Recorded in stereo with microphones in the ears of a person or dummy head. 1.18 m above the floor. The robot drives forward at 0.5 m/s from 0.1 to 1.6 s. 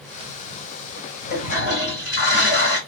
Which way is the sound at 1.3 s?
55° left (ahead or behind).